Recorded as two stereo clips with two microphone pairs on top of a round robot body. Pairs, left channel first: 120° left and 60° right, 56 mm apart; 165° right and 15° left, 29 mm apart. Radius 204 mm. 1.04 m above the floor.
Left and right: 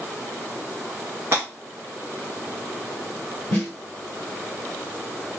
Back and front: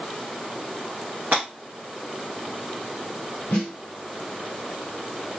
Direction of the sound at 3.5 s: 170° left.